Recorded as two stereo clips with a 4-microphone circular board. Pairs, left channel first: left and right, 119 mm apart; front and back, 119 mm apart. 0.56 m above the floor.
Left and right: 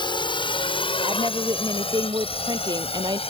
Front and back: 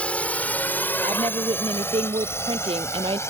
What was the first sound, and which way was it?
A drone, 75° left.